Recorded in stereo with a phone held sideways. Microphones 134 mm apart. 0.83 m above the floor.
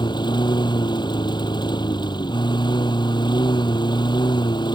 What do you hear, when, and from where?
0.0 s a lawn mower: 35° left (ahead or behind)